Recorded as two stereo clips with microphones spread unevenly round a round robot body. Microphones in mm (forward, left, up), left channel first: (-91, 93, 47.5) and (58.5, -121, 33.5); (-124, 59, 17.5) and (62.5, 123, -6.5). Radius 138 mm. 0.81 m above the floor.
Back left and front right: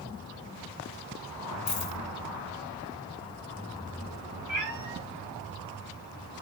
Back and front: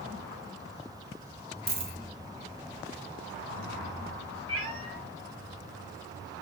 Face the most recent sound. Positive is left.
turn(degrees=30)